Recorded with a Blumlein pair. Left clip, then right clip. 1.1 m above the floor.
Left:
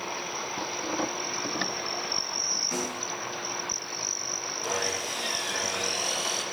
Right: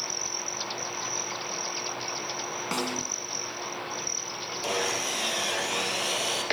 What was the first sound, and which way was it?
A snare drum, 65° right.